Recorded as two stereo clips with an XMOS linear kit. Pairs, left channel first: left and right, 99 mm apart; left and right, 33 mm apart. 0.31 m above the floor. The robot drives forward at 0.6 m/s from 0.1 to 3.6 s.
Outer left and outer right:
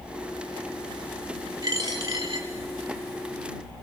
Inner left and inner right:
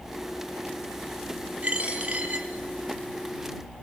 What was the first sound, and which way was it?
A dropped coin, 40° right (ahead or behind).